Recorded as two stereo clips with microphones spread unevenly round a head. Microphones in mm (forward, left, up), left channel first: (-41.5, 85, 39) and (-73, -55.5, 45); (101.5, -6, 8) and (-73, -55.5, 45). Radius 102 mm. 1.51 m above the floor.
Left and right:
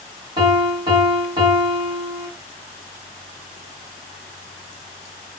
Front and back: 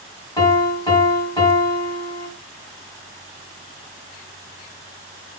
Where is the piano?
60° right, 1.6 m.